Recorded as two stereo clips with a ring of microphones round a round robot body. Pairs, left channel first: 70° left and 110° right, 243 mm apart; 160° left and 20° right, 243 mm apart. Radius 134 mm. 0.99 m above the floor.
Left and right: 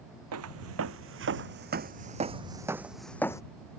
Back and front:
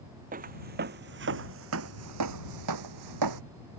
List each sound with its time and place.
0.3 s footsteps: 80° right; by 3.4 s 10° right